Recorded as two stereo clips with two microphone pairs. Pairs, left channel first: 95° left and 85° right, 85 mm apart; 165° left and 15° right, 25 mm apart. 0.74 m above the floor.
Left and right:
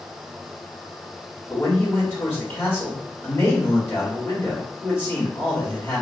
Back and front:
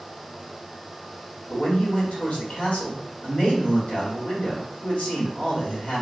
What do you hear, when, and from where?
1.5 s a man speaking: 160° left, 2.0 m